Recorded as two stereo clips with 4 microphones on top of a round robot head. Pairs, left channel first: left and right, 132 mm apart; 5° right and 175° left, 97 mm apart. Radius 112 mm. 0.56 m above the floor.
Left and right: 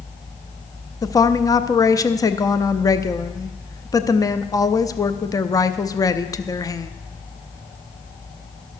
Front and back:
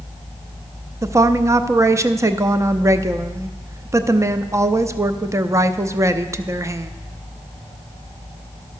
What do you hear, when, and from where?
1.0 s a woman speaking: 135° left, 0.7 m